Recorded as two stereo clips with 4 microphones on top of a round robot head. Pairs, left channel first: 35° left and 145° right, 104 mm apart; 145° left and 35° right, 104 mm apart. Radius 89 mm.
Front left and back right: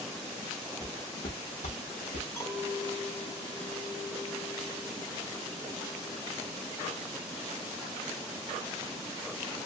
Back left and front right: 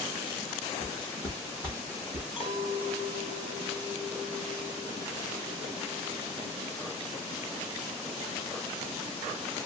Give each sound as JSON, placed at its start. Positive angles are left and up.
{"t": 0.8, "sound": "footsteps", "azimuth_deg": 95, "distance_m": 1.1}
{"t": 2.4, "sound": "a clink", "azimuth_deg": 105, "distance_m": 1.6}